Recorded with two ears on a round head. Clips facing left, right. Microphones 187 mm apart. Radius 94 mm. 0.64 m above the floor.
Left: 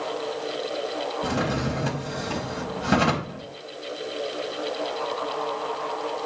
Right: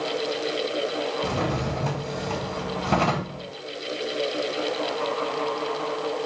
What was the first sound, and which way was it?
A drawer, 15° left (ahead or behind).